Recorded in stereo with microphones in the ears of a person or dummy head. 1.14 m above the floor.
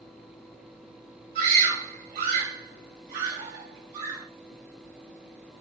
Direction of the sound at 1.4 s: 55° right (ahead or behind).